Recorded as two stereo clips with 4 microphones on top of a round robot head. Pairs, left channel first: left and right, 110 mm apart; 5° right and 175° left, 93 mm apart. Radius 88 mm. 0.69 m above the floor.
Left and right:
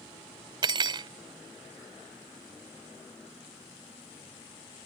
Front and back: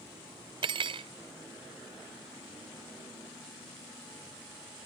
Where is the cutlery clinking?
140° right.